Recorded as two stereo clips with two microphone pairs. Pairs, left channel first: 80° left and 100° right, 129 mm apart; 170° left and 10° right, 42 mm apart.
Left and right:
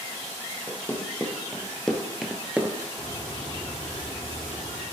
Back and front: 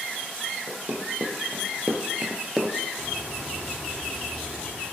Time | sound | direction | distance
0.7 | running footsteps | 10° left | 2 m
3.0 | a bird | 130° left | 1.8 m